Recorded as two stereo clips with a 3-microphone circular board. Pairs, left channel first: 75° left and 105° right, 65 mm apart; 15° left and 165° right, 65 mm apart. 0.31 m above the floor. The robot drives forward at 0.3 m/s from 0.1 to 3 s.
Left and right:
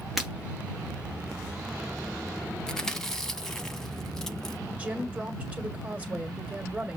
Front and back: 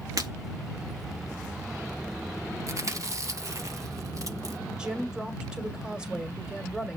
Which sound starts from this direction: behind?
Breaking glass, at 0.2 s.